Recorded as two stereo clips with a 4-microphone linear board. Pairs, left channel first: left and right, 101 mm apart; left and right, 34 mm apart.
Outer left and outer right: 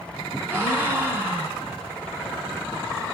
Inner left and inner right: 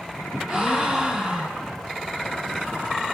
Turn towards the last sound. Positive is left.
turn(degrees=-20)  # may be behind; listen again after turning